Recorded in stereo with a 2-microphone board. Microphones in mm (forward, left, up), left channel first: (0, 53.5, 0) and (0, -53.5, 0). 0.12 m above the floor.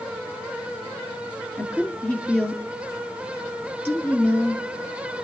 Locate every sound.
1.6 s a woman speaking: 15° left (ahead or behind), 1.8 m